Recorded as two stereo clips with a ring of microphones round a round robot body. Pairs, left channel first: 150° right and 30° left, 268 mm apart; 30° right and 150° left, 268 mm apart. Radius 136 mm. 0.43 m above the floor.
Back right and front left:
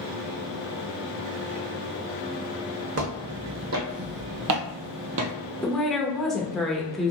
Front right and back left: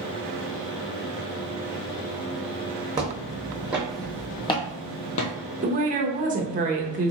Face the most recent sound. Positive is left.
turn(degrees=125)